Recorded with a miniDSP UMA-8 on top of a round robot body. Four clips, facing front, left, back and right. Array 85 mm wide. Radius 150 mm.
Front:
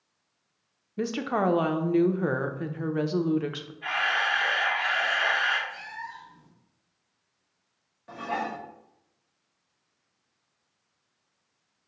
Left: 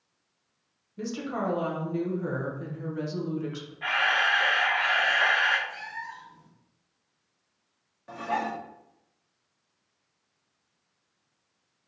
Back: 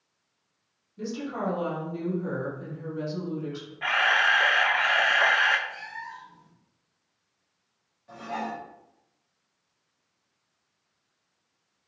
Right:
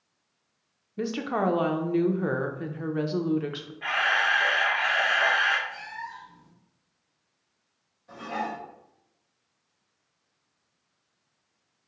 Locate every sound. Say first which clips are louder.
1.0 s a woman speaking: right 4 dB, front 5 dB; 25° right, 0.6 m
3.8 s a camera shutter: even, back 4 dB; 175° left, 0.7 m
5.7 s a cat meowing: even, even; 130° left, 1.0 m
8.1 s dishes clattering: left 2 dB, front 2 dB; 55° left, 0.9 m